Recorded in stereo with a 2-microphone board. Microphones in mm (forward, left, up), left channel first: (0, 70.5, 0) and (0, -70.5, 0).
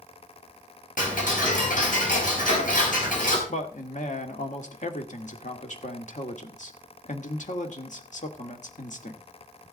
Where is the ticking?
80° left, 4.5 m.